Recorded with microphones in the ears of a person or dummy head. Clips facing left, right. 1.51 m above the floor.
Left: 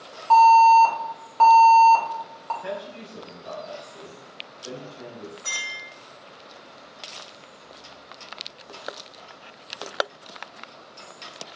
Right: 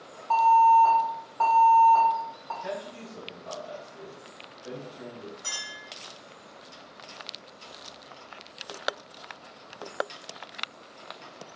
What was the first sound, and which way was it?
An alarm, 65° left (ahead or behind).